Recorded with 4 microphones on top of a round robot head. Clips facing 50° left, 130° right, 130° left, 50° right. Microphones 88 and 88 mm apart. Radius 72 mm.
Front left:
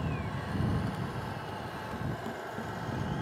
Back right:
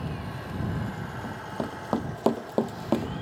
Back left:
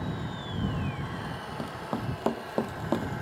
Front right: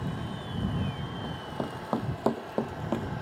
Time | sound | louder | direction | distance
1.2 | running footsteps | back right 5 dB, front right 1 dB | 100° right | ?